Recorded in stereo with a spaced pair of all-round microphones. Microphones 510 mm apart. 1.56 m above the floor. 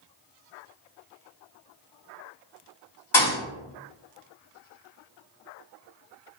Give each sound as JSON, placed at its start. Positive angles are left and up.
{"t": 3.1, "sound": "a thud", "side_deg": 60, "distance_m": 1.7}